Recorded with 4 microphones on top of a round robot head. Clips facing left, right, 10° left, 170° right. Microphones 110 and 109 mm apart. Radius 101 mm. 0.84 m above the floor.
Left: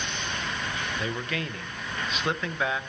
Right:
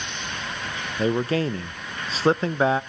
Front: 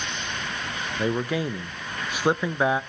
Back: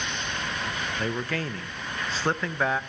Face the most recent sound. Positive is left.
turn(degrees=-60)